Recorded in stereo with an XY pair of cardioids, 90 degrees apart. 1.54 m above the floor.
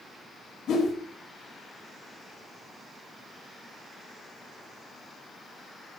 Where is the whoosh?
60° left, 0.8 m.